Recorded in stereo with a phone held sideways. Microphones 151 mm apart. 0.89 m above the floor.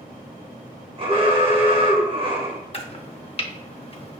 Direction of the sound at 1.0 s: 40° right (ahead or behind).